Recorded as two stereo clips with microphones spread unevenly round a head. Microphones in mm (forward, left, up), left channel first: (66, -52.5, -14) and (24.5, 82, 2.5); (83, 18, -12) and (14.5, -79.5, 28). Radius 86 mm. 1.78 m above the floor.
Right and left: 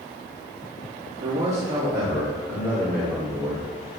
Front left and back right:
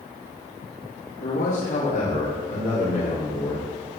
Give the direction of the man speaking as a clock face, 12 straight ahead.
11 o'clock.